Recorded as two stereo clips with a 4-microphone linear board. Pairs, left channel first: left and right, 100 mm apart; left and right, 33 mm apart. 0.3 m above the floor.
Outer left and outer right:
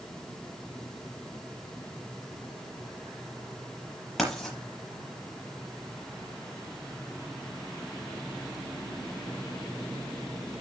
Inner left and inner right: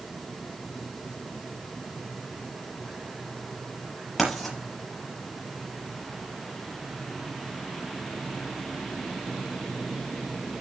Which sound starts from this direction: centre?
Writing, at 4.2 s.